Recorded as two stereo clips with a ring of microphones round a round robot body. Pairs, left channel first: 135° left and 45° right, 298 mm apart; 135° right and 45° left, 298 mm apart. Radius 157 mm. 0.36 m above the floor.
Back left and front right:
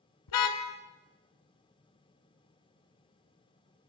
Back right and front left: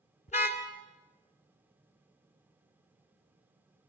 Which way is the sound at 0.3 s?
155° left.